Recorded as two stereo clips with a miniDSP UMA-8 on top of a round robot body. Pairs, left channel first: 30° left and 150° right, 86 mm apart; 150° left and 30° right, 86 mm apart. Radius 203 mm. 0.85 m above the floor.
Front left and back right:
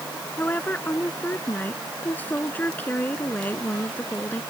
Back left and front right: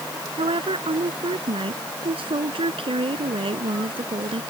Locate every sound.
0.4 s a woman speaking: 40° right